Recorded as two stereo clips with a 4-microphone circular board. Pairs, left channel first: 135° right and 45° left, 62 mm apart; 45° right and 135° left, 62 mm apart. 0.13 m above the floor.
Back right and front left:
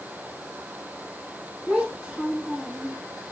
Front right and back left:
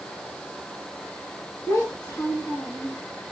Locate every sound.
1.7 s a child speaking: 35° right, 2.5 m